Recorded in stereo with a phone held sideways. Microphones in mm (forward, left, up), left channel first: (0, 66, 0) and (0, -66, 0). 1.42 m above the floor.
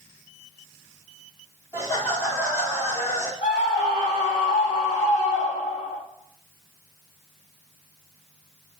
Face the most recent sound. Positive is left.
turn(degrees=40)  # may be behind; listen again after turning